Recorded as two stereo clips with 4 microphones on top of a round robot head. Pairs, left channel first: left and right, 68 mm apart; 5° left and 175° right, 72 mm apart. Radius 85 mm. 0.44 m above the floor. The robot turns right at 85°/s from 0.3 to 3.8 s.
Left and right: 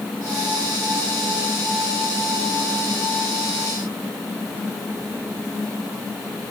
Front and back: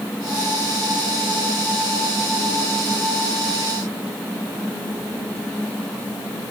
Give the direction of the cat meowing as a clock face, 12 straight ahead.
No cat meowing in this recording.